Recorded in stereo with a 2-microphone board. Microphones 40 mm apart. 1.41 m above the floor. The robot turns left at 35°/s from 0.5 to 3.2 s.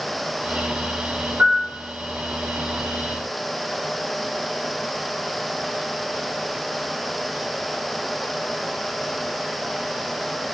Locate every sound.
1.4 s a piano: 55° right (ahead or behind), 1.4 m